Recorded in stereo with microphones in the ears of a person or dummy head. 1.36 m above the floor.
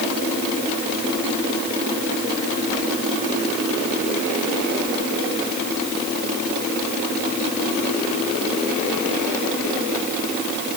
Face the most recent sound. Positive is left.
No sound to turn to.